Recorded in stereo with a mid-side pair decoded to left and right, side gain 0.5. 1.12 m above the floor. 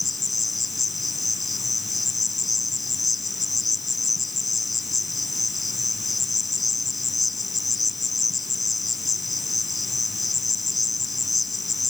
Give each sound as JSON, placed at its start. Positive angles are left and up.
{"t": 0.0, "sound": "an insect", "azimuth_deg": 15}